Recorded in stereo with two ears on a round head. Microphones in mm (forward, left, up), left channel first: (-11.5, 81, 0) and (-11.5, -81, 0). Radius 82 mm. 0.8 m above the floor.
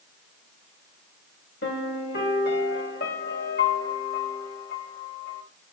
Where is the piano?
55° left (ahead or behind), 1.7 m.